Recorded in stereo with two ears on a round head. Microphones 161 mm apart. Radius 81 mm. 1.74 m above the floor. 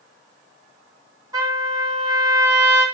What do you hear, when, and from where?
1.3 s a trumpet: 20° right (ahead or behind), 4 m